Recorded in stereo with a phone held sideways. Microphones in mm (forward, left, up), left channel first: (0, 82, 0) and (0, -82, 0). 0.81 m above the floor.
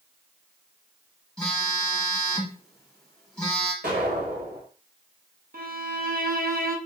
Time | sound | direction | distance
1.4 | a phone buzzing | 5° left (ahead or behind) | 1.3 m
3.8 | an explosion | 90° right | 1.9 m
5.5 | a violin | 65° right (ahead or behind) | 0.6 m